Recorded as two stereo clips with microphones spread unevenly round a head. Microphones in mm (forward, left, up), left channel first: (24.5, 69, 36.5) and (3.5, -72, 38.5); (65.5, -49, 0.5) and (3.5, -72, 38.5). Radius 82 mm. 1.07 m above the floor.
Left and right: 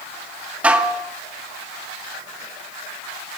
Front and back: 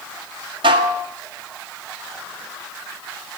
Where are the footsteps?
No footsteps in this recording.